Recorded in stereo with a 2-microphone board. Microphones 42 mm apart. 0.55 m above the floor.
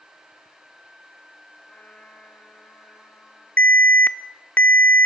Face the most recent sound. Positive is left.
turn(degrees=45)  # may be behind; listen again after turning